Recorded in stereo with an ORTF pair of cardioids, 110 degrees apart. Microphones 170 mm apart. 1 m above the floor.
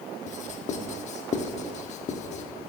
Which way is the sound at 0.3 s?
45° left.